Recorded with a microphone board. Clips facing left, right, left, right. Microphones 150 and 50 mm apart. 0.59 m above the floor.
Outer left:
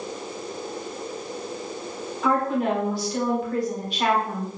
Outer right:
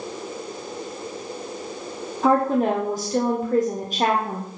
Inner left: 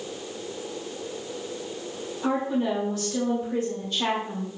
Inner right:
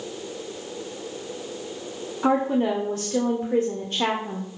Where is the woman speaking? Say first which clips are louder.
Outer right 4 dB, inner right 4 dB; 40° right (ahead or behind), 1.3 m.